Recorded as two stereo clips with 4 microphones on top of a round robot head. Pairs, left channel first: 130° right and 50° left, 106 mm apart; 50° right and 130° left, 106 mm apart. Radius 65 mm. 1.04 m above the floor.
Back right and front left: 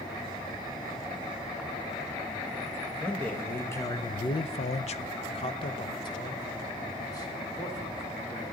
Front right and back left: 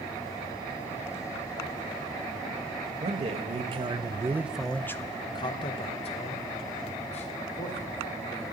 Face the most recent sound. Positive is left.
turn(degrees=-65)